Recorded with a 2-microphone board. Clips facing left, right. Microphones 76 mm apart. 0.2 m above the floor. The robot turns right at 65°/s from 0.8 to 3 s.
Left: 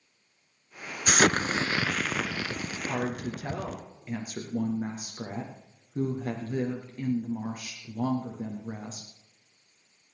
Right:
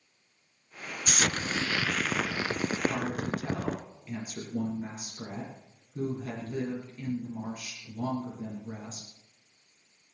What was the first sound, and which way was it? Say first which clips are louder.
An explosion: left 7 dB; 115° left.